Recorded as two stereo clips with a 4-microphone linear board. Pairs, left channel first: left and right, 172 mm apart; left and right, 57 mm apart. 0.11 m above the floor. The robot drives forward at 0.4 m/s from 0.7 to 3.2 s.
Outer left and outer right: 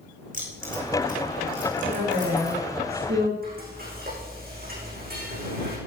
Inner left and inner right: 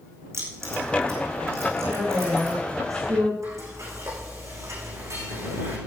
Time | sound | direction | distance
0.3 | keys jangling | 55° right (ahead or behind) | 6 m
1.8 | a woman speaking | 70° right (ahead or behind) | 5 m
3.4 | frying | 60° right (ahead or behind) | 8.5 m